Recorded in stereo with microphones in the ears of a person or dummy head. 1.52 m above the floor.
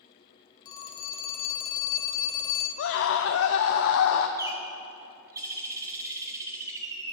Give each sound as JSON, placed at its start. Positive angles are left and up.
{"t": 0.7, "sound": "a phone ringing", "side_deg": 20, "distance_m": 0.7}
{"t": 2.8, "sound": "a scream", "side_deg": 70, "distance_m": 0.7}
{"t": 4.4, "sound": "a bird", "side_deg": -20, "distance_m": 1.2}